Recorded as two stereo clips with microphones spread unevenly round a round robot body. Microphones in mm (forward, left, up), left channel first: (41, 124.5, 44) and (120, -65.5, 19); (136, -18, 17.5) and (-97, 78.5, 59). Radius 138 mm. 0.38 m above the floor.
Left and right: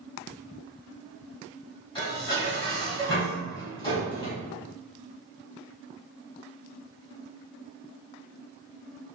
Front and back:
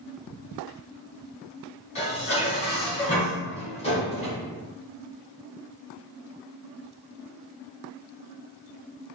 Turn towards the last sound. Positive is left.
turn(degrees=45)